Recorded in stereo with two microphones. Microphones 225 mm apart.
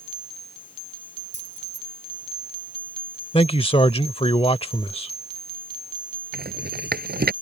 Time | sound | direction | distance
1.3 | keys jangling | 50° left (ahead or behind) | ?
3.3 | a man speaking | 25° left (ahead or behind) | ?
6.3 | a rattle | 45° right (ahead or behind) | ?